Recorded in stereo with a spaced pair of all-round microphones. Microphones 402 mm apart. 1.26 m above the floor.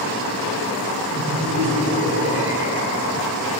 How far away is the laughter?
About 9 m.